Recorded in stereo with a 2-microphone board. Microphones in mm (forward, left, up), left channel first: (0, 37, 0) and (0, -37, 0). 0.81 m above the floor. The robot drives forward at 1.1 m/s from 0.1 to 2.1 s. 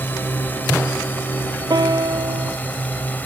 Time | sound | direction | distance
0.0 | a drone | 25° left (ahead or behind) | ?
1.7 | a piano | 70° right (ahead or behind) | ?